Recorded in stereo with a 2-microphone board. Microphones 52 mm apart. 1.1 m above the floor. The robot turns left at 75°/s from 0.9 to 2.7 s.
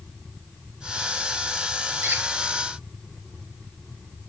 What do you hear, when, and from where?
2.0 s a squeak: 55° right (ahead or behind), 6 m; by 2.2 s 40° right (ahead or behind), 6 m